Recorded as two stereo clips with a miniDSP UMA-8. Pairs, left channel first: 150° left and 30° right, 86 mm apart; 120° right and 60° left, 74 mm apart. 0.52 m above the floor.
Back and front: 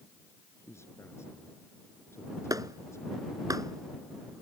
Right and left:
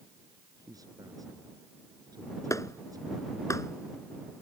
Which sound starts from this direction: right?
A clap, at 2.5 s.